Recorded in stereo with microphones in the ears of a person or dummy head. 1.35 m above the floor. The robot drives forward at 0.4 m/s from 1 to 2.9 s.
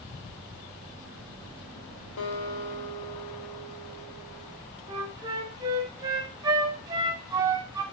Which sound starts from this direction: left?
A guitar, at 2.2 s.